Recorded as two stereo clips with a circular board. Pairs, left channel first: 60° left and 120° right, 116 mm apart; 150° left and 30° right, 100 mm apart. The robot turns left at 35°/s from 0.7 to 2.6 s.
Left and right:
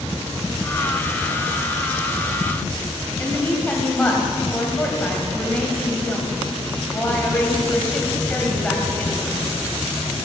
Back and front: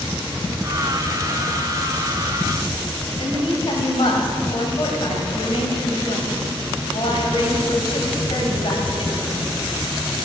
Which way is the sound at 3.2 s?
135° left.